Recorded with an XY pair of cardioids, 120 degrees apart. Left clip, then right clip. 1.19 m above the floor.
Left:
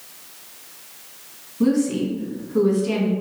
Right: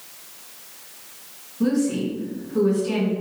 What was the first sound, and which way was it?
A woman speaking, 20° left.